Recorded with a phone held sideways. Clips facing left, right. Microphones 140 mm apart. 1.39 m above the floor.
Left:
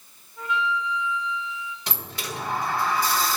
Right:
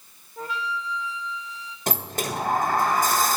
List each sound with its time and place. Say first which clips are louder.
0.4 s a flute: left 4 dB; 35° right (ahead or behind), 1.4 m
1.9 s a sliding door: right 10 dB; 45° right (ahead or behind), 1.3 m